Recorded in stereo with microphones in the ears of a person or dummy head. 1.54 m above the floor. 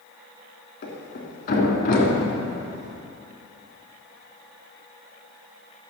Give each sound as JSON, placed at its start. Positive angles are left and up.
{"t": 0.8, "sound": "a thud", "side_deg": 45, "distance_m": 3.0}